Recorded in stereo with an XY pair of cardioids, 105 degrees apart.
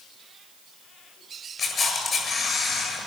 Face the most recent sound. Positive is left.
turn(degrees=40)